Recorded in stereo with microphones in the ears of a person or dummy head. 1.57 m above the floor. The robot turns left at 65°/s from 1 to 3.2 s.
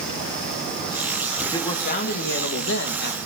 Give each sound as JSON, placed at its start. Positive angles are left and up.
{"t": 1.4, "sound": "a man speaking", "azimuth_deg": 170, "distance_m": 1.4}